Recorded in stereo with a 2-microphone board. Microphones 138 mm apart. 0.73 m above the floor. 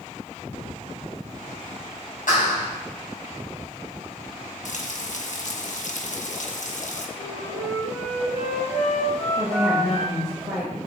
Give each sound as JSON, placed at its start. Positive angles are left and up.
{"t": 2.3, "sound": "a clap", "side_deg": 80, "distance_m": 4.0}
{"t": 4.7, "sound": "frying", "side_deg": 65, "distance_m": 1.0}
{"t": 7.2, "sound": "a flute", "side_deg": 55, "distance_m": 4.0}
{"t": 9.4, "sound": "a woman speaking", "side_deg": 0, "distance_m": 3.5}